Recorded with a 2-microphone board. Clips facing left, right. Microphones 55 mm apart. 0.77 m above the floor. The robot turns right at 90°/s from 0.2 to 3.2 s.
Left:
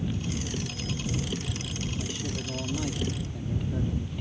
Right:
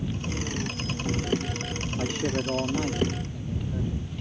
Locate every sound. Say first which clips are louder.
2.0 s a man speaking: right 7 dB; 100° right; by 4.2 s 10° left